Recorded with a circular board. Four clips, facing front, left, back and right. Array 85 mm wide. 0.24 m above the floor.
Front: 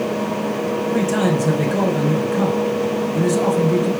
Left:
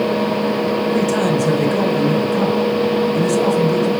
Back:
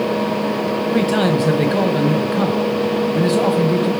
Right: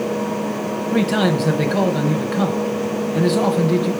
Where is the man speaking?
125° right, 1.0 m.